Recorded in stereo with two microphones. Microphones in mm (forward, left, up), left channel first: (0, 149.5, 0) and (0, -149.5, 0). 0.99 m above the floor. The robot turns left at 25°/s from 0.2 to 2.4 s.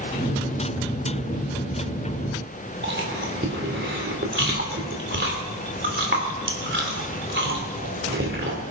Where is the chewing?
35° right (ahead or behind), 3.5 m.